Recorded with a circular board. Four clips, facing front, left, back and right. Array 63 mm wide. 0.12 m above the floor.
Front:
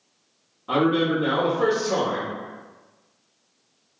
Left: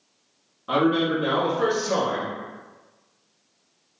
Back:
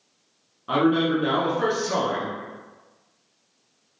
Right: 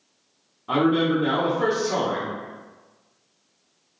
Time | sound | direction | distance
0.7 | a man speaking | 135° left | 1.0 m